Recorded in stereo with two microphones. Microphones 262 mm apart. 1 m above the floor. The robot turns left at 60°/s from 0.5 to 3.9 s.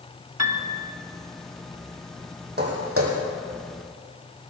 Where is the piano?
80° right, 1.2 m; by 0.7 s 75° right (ahead or behind), 1.2 m.